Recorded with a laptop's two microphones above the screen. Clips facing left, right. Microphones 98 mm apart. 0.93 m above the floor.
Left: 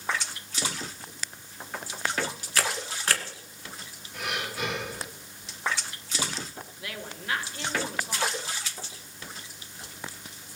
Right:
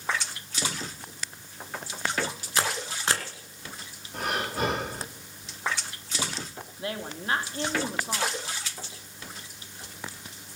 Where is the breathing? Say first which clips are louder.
Right 4 dB; 40° right (ahead or behind), 1.3 m.